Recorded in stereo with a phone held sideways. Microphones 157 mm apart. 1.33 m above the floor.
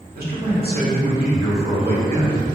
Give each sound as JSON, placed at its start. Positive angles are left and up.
{"t": 0.1, "sound": "a man speaking", "side_deg": -70, "distance_m": 1.2}